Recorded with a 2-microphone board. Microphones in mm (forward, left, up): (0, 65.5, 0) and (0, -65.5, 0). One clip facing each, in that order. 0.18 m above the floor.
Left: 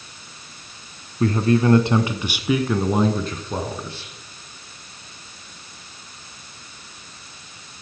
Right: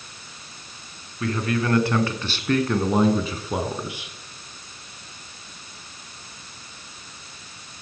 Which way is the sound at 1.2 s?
35° left (ahead or behind).